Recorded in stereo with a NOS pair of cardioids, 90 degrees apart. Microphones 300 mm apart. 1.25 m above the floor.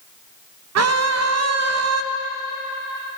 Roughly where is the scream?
Ahead right.